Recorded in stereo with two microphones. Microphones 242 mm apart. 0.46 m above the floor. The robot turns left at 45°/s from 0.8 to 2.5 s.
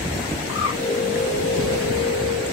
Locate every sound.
0.5 s a bird: 15° right (ahead or behind), 1.4 m